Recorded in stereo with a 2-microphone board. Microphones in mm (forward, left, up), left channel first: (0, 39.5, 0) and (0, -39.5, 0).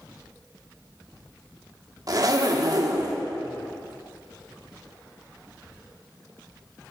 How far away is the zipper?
About 0.5 m.